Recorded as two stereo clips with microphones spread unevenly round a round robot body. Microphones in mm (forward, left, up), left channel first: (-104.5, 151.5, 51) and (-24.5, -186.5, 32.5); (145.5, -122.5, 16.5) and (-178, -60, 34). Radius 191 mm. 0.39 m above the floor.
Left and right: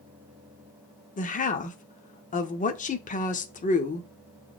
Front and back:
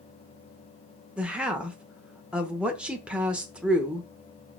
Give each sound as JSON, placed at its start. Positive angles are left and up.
{"t": 1.2, "sound": "a woman speaking", "azimuth_deg": 80, "distance_m": 0.8}